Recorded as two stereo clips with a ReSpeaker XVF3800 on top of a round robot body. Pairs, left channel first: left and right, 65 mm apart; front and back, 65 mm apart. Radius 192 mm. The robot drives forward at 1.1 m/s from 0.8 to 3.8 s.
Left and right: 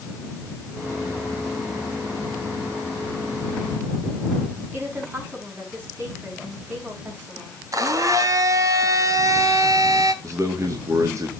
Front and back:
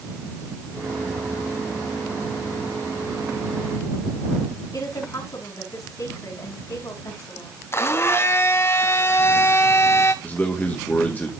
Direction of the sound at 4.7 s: 30° right.